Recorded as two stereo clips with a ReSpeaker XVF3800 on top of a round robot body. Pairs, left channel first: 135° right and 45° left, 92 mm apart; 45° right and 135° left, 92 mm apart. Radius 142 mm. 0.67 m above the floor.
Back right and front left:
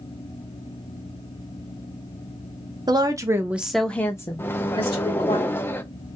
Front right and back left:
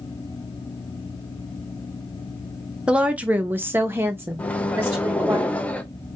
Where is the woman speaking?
60° left, 0.8 m; by 5.4 s 155° right, 1.2 m.